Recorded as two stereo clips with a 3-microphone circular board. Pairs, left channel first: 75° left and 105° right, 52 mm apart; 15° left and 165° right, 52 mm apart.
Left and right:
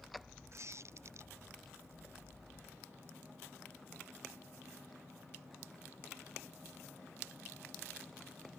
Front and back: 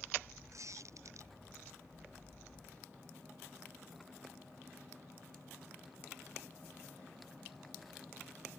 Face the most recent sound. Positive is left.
turn(degrees=-140)